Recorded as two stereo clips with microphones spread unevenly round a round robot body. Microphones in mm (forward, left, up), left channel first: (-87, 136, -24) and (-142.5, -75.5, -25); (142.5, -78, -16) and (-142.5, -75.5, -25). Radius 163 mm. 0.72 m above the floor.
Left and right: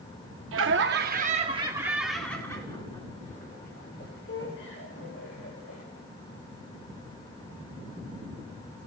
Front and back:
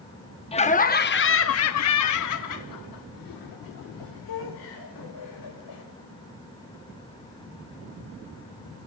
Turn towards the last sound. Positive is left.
turn(degrees=25)